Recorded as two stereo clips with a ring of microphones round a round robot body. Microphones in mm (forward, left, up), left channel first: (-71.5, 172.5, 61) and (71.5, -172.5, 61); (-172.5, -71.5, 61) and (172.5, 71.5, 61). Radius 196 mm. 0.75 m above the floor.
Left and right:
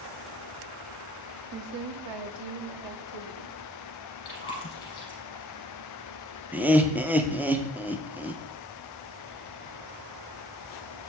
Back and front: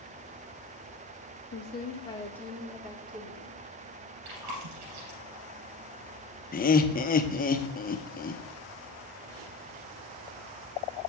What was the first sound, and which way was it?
A woman speaking, 100° right.